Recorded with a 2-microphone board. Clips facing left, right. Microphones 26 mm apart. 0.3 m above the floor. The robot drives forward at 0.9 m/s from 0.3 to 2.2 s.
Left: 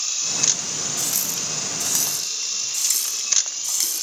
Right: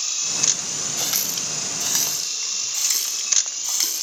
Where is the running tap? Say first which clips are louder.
Right 1 dB; 40° right (ahead or behind), 0.9 m; by 4.0 s 20° right (ahead or behind), 1.7 m.